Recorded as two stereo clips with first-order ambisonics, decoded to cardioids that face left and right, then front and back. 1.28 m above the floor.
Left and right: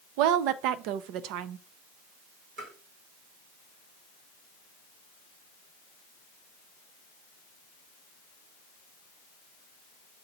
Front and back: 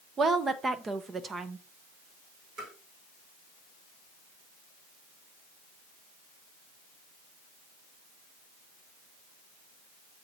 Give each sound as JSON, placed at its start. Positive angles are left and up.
{"t": 0.2, "sound": "a woman speaking", "azimuth_deg": -110, "distance_m": 0.6}
{"t": 2.6, "sound": "tapping", "azimuth_deg": -135, "distance_m": 6.5}